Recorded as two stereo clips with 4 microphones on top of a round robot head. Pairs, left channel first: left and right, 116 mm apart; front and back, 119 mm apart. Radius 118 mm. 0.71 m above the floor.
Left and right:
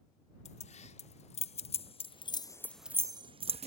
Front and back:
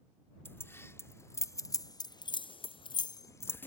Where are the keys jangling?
70° left; by 3.7 s 70° right.